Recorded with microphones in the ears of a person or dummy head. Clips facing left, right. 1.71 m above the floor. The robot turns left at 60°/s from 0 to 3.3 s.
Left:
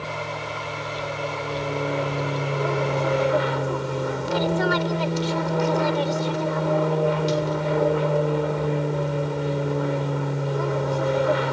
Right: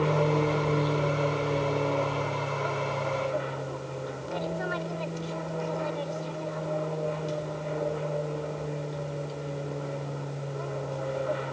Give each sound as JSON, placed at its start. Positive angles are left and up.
{"t": 0.0, "sound": "an aircraft", "azimuth_deg": -75}